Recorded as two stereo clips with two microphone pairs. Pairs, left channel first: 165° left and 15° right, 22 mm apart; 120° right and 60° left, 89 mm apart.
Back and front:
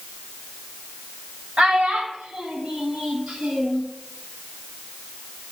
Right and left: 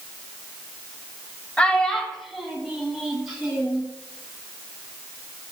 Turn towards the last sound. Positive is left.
turn(degrees=-15)